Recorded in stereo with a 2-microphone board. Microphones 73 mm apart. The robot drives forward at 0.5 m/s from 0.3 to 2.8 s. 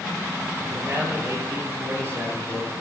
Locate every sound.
0.6 s a man speaking: 40° right (ahead or behind), 7 m; by 2.7 s 35° right (ahead or behind), 7.5 m